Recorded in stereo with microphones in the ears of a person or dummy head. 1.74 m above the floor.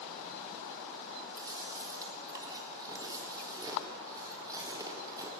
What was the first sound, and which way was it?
Chewing, 20° right (ahead or behind).